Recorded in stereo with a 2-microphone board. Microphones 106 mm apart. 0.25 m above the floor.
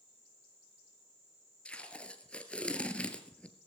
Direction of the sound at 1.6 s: 10° left (ahead or behind).